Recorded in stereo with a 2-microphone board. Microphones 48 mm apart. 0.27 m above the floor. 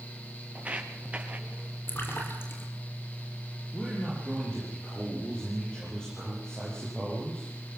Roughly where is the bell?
I don't hear a bell.